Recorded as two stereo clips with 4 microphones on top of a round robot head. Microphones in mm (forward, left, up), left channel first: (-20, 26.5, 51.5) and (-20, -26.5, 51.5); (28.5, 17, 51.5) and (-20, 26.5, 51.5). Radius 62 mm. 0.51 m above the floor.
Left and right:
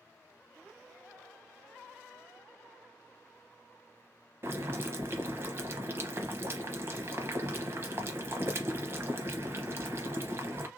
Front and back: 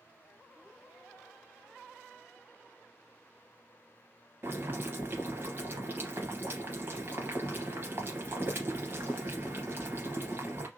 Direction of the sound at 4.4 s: 135° right.